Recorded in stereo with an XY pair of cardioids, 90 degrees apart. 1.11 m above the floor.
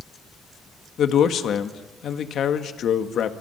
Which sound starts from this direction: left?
A man speaking, at 1.0 s.